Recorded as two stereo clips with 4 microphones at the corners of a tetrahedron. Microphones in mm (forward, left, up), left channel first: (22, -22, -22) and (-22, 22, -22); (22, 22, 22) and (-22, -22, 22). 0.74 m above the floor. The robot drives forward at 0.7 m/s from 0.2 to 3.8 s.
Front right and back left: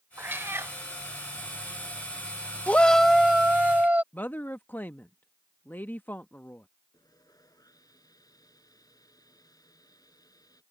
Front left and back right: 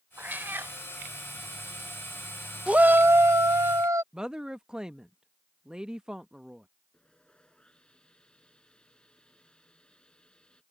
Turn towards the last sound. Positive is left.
turn(degrees=-30)